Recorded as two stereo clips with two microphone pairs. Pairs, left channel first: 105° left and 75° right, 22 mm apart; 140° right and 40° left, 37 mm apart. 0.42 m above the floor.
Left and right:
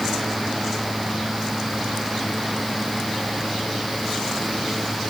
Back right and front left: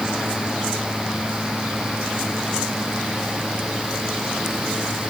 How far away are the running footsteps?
I don't hear running footsteps.